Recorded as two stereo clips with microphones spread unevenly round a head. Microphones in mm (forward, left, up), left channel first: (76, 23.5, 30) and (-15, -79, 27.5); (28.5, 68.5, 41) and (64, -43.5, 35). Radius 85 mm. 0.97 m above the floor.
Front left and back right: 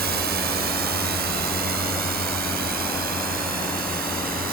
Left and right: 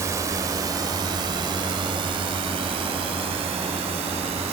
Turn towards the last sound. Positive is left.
turn(degrees=-120)